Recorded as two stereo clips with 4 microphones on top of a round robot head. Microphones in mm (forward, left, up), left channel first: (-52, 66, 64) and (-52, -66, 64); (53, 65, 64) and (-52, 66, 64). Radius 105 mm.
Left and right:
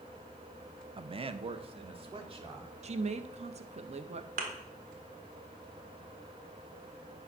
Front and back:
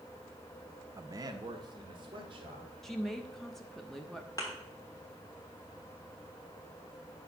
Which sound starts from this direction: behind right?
A man speaking, at 1.0 s.